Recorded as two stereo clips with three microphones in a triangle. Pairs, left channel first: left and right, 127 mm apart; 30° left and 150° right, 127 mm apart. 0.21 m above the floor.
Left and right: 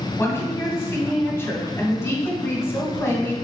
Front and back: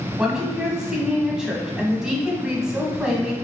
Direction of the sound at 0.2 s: 130° left.